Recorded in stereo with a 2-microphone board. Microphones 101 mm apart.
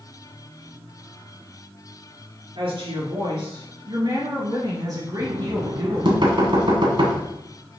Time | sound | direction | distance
2.5 | a woman speaking | 60° right (ahead or behind) | 3 m
5.2 | knocking | 50° right (ahead or behind) | 1.7 m